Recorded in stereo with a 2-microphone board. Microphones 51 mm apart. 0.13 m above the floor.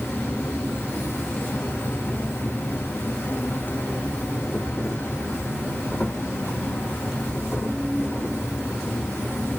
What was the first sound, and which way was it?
An insect, 50° left (ahead or behind).